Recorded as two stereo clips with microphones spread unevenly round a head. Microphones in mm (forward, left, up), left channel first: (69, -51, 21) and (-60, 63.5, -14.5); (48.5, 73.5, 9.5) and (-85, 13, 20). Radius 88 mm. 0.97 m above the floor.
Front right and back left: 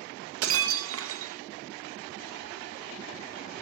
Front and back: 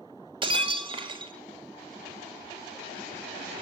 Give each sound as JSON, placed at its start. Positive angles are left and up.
{"t": 0.4, "sound": "breaking glass", "azimuth_deg": 150, "distance_m": 1.8}